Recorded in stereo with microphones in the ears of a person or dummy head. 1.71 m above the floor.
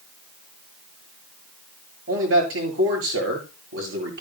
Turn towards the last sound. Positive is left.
turn(degrees=-80)